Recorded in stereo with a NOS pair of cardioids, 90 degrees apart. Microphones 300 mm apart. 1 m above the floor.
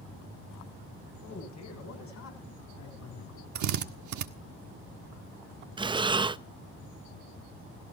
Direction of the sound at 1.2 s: 60° left.